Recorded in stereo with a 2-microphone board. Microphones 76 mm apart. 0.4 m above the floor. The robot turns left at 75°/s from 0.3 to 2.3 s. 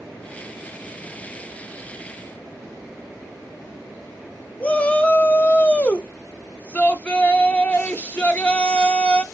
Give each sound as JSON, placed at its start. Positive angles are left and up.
{"t": 4.6, "sound": "a shout", "side_deg": 20, "distance_m": 0.8}